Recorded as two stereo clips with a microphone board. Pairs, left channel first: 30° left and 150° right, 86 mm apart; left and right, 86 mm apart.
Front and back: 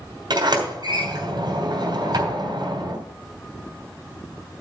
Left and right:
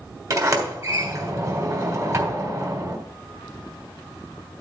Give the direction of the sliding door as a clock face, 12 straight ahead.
4 o'clock.